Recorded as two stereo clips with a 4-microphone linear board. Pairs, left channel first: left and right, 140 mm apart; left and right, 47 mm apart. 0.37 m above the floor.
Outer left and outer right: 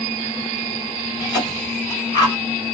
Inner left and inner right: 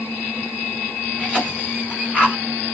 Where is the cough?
30° left (ahead or behind), 1.5 m.